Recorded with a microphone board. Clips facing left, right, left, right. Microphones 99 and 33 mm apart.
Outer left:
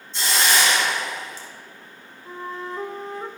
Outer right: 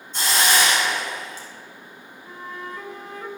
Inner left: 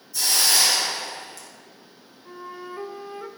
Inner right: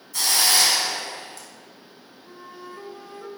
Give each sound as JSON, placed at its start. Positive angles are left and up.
{"t": 0.1, "sound": "a hiss", "side_deg": -60, "distance_m": 2.5}
{"t": 2.2, "sound": "a flute", "side_deg": 30, "distance_m": 0.6}